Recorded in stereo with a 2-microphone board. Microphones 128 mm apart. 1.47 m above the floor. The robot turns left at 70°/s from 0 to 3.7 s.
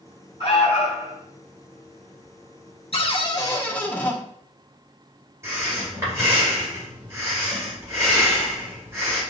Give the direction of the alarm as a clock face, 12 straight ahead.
8 o'clock.